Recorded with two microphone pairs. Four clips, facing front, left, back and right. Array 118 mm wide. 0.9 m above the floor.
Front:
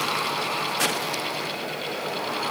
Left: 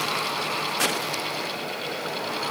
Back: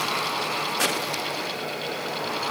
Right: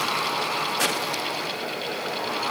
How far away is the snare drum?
I don't hear a snare drum.